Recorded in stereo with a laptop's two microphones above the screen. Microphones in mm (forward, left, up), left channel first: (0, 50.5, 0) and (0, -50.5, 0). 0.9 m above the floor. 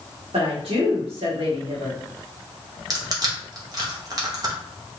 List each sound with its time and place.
0.3 s a woman speaking: 70° right (ahead or behind), 1.6 m
2.9 s crushing: 35° right (ahead or behind), 0.8 m